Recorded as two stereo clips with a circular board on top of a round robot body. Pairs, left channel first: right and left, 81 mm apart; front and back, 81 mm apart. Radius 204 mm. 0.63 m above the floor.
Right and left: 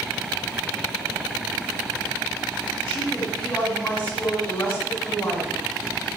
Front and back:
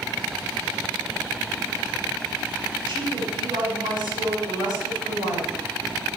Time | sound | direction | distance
2.9 | a woman speaking | 160° right | 5.5 m